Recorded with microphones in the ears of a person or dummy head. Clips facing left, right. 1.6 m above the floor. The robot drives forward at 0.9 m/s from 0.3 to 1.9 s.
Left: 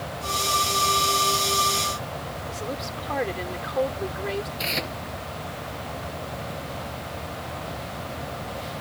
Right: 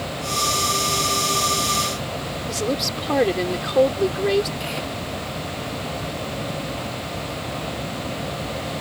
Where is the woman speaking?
55° right (ahead or behind).